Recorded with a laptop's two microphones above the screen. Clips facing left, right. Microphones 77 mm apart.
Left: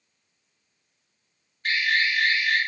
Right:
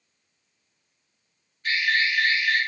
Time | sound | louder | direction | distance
1.6 | an alarm | even | 50° left (ahead or behind) | 0.8 m